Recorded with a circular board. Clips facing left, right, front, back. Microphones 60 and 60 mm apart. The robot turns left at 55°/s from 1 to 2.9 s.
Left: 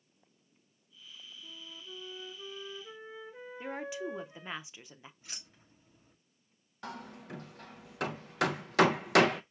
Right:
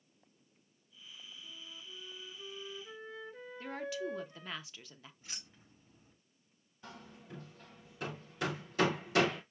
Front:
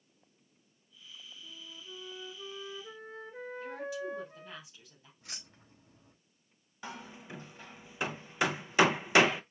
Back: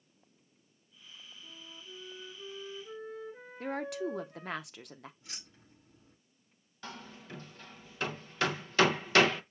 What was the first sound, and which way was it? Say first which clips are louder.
A flute: left 4 dB, front 1 dB; 90° left.